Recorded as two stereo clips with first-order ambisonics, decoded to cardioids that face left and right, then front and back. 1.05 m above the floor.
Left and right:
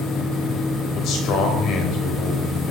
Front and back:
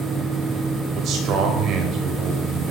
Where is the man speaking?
130° left, 5 m.